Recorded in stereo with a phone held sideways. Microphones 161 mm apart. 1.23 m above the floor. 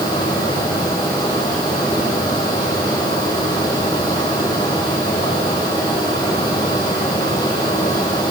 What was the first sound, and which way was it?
A fan, 25° left (ahead or behind).